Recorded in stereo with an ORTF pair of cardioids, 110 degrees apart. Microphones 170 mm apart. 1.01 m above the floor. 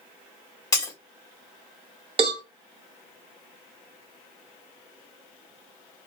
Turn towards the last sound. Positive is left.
turn(degrees=-35)